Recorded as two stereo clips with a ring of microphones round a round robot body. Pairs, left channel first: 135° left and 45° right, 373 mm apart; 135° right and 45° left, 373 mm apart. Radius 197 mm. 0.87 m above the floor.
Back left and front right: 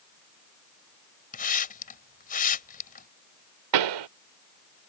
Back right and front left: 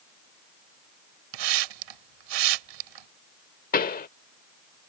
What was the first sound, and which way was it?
A hiss, 65° left.